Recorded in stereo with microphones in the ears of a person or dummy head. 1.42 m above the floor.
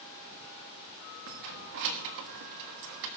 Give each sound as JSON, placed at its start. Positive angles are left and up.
{"t": 1.3, "sound": "keys jangling", "side_deg": -65, "distance_m": 1.2}